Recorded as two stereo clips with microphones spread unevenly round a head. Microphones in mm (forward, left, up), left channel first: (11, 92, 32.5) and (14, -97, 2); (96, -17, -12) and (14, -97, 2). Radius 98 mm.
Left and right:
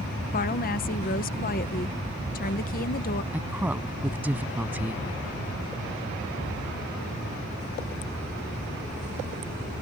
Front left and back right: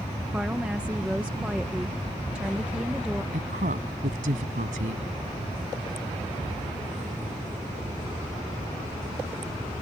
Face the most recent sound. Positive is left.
turn(degrees=-170)